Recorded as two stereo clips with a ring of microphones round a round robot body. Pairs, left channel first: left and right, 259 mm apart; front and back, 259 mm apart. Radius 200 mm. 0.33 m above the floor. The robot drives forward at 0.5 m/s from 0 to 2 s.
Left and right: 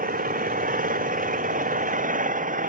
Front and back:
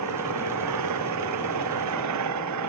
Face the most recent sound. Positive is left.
turn(degrees=-150)